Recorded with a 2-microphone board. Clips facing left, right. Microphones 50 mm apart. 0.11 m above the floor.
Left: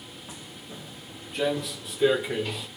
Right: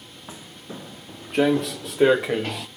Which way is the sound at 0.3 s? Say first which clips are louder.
Right 6 dB; 30° right (ahead or behind).